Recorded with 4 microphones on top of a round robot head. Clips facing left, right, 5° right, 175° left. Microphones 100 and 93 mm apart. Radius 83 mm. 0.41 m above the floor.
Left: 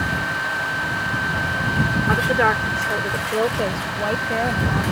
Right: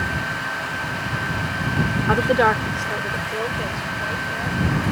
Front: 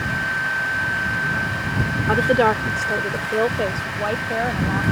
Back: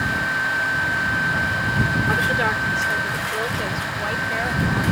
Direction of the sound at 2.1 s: 35° right.